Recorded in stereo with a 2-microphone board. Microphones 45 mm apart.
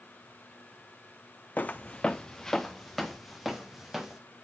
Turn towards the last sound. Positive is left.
turn(degrees=-5)  # may be behind; listen again after turning